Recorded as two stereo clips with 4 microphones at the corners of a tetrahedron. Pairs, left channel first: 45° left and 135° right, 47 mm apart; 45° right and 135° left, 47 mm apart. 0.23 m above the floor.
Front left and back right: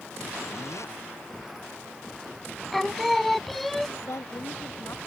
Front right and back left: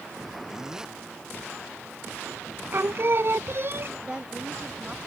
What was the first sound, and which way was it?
A zipper, 55° left.